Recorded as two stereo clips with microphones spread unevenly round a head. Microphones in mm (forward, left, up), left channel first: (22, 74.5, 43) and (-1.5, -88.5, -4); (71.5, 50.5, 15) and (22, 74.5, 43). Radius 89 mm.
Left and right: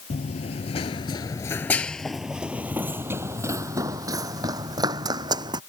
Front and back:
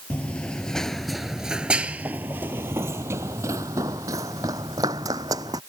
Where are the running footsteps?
60° left; by 5.6 s 170° right.